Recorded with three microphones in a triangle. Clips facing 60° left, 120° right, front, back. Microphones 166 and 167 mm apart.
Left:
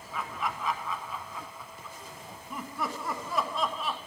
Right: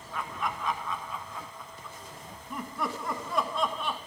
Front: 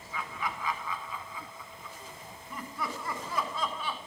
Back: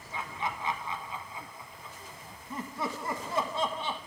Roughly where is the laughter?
Behind left.